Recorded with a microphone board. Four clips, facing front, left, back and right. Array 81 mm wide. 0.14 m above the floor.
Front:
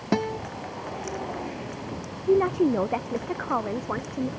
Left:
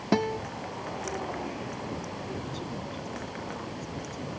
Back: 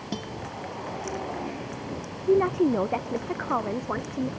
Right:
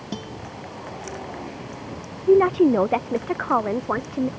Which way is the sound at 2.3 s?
90° right.